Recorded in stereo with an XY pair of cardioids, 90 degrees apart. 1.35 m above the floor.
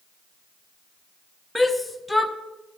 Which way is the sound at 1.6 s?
10° left.